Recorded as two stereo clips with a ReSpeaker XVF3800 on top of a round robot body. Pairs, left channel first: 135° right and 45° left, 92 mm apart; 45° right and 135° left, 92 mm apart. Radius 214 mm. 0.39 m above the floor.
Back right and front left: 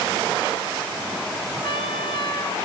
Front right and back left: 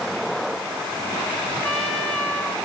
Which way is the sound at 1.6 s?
110° right.